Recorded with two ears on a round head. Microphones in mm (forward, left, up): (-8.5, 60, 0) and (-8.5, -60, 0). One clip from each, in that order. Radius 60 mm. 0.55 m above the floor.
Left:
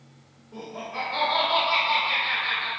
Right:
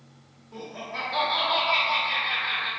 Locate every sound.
0.5 s laughter: 25° right (ahead or behind), 1.3 m; by 2.7 s 45° left (ahead or behind), 1.7 m